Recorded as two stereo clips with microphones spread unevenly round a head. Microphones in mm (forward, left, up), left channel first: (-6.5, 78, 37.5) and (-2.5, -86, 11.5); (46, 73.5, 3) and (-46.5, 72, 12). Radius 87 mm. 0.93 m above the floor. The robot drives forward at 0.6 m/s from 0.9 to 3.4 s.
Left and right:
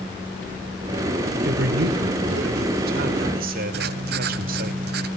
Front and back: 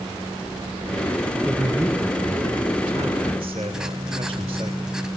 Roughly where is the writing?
Right.